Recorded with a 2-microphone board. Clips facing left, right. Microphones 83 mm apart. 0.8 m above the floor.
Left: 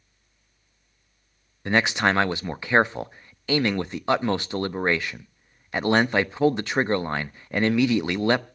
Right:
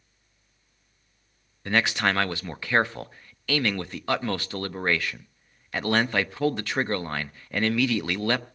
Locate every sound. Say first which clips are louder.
1.6 s a man speaking: left 3 dB; 20° left (ahead or behind), 0.6 m